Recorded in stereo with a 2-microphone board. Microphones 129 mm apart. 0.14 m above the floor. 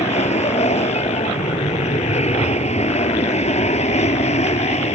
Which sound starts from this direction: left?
An aircraft, at 0.0 s.